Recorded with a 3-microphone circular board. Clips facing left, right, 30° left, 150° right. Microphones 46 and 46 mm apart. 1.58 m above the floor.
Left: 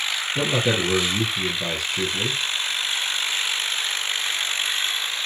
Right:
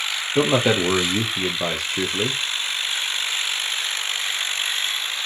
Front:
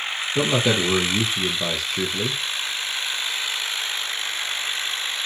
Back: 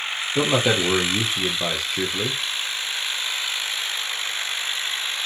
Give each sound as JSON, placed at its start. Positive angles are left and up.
{"t": 0.3, "sound": "a man speaking", "azimuth_deg": -70, "distance_m": 0.6}